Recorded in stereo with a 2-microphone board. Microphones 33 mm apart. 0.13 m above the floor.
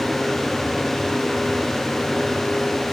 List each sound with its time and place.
Only background noise.